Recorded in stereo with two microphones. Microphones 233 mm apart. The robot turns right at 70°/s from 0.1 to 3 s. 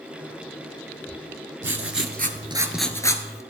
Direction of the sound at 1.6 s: 80° right.